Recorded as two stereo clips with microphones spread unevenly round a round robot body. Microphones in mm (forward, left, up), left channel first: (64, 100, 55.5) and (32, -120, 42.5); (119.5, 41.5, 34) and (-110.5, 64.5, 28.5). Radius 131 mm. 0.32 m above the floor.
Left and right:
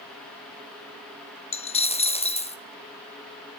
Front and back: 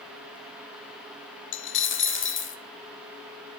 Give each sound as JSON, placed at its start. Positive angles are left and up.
{"t": 1.5, "sound": "a dropped coin", "azimuth_deg": 20, "distance_m": 0.7}